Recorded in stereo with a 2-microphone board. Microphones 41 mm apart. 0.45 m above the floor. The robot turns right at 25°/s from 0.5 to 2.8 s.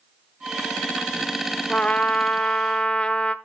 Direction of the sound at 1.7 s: 30° left (ahead or behind).